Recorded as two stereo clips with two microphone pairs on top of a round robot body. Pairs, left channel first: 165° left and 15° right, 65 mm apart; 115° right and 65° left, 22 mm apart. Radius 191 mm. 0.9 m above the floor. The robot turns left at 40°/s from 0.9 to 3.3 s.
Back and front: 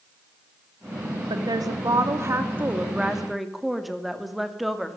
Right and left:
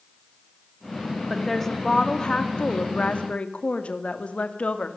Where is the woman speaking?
30° right, 2.5 m; by 5.0 s 110° right, 2.5 m.